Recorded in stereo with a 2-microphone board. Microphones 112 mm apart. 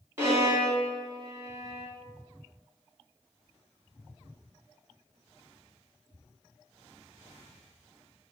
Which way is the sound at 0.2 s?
20° right (ahead or behind).